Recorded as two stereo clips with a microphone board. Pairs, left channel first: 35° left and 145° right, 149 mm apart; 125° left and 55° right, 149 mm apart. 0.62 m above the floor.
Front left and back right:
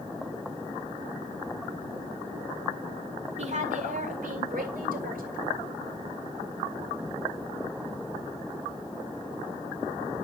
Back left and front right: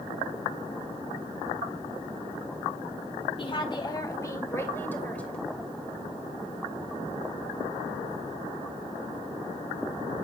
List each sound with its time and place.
3.4 s a woman speaking: 175° left, 1.9 m; by 5.4 s 155° right, 2.5 m